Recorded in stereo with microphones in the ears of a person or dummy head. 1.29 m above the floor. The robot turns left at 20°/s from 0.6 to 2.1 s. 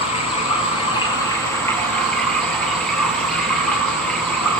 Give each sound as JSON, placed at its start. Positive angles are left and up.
{"t": 0.0, "sound": "running water", "azimuth_deg": 30, "distance_m": 9.5}